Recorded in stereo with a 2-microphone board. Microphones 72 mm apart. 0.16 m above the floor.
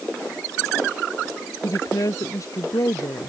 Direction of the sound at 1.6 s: 55° left (ahead or behind).